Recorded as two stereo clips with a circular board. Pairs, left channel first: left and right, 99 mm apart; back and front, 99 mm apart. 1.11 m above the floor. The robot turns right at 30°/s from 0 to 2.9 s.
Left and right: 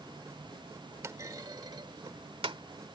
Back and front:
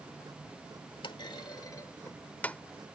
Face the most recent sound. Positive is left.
turn(degrees=-95)